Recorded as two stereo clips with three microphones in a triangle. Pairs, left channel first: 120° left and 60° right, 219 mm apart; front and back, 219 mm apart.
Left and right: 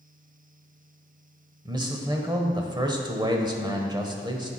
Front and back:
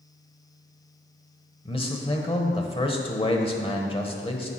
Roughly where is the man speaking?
Ahead.